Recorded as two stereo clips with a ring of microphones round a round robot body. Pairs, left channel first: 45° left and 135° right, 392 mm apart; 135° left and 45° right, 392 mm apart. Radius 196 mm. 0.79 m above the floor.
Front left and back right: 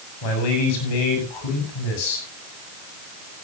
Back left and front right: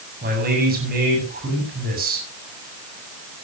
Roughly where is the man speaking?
Ahead left.